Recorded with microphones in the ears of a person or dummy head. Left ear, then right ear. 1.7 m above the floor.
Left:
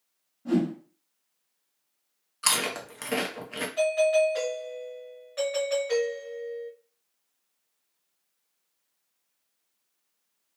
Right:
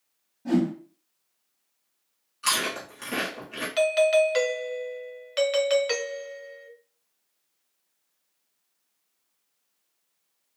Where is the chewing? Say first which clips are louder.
Right 1 dB; 45° left (ahead or behind), 0.8 m.